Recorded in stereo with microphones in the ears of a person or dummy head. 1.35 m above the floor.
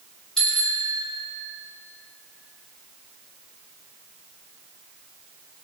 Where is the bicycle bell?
Centre (ahead or behind), 3 m.